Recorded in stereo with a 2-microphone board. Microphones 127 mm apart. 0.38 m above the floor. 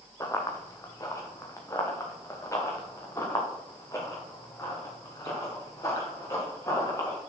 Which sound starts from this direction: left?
Running footsteps, at 0.2 s.